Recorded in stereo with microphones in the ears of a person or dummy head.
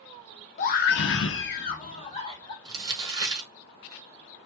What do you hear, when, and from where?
0.6 s a scream: 40° left (ahead or behind), 0.6 m; by 2.5 s 25° left (ahead or behind), 0.9 m
2.6 s crumpling: 20° right (ahead or behind), 0.7 m